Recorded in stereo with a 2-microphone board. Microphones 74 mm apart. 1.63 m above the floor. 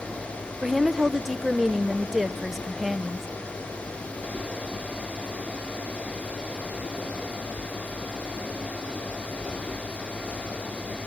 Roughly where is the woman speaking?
Centre.